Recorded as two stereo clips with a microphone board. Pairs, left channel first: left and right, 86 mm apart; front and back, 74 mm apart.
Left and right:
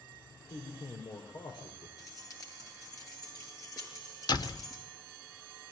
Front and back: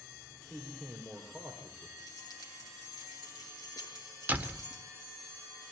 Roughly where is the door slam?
Behind left.